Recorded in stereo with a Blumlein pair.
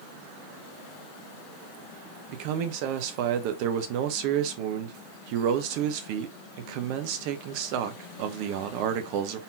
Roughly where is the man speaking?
Ahead right.